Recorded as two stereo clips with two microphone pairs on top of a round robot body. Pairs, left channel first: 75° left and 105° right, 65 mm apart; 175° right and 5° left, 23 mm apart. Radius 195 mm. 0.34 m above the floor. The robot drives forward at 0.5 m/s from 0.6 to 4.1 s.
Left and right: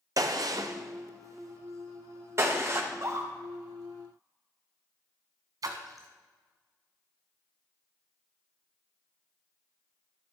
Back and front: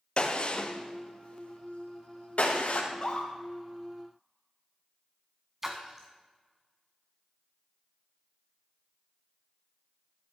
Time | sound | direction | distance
0.2 | a gunshot | 125° right | 1.1 m
2.9 | a scream | 135° right | 2 m
5.6 | a splash | 70° right | 0.6 m